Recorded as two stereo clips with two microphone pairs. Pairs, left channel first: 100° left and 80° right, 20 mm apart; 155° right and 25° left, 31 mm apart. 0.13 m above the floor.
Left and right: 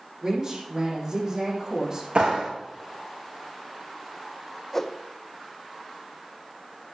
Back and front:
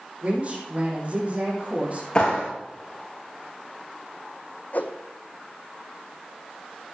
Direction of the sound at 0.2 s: 25° right.